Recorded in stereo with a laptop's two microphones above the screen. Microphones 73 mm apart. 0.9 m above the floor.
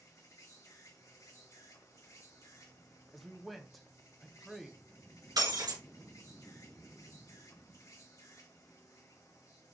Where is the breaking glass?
65° right (ahead or behind), 3 m.